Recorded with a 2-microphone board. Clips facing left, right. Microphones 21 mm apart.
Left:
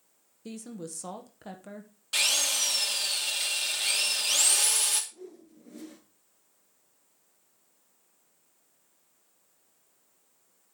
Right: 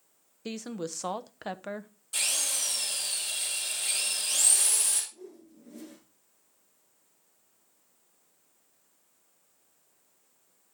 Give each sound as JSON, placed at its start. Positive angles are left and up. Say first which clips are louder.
{"t": 0.5, "sound": "a woman speaking", "louder": "right 5 dB", "side_deg": -50, "distance_m": 0.8}
{"t": 2.1, "sound": "a drill", "louder": "left 5 dB", "side_deg": 65, "distance_m": 3.0}
{"t": 5.1, "sound": "a whoosh", "louder": "left 1 dB", "side_deg": 20, "distance_m": 7.0}